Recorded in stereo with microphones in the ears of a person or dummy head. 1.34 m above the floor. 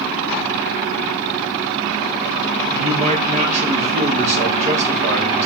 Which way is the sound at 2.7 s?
35° right (ahead or behind).